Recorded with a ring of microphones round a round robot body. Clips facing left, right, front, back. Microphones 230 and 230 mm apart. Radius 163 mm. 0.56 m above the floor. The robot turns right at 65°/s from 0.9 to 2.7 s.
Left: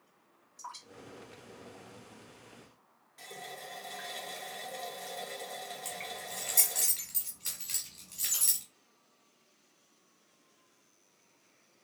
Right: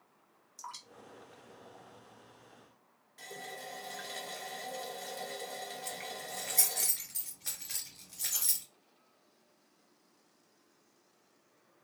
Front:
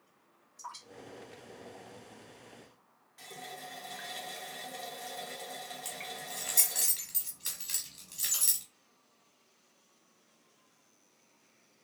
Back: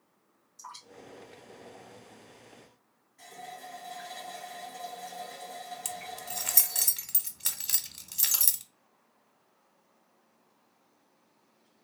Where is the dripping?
95° right, 2 m; by 2.4 s 5° left, 2 m.